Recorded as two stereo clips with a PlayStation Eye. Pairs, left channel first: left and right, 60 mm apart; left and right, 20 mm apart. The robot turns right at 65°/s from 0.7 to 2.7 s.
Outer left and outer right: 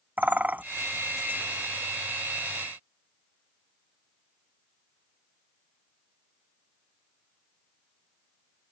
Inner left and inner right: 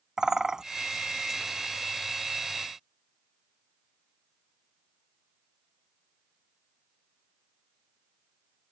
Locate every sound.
0.2 s a bird: 30° right (ahead or behind)